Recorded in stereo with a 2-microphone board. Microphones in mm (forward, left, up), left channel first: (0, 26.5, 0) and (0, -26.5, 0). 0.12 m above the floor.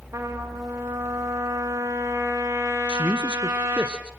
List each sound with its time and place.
0.1 s a trumpet: 65° right (ahead or behind), 4 m
2.9 s a man speaking: 20° right (ahead or behind), 1.5 m